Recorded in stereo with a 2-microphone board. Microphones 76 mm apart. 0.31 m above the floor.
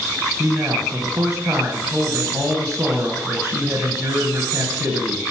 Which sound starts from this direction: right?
A man speaking, at 0.4 s.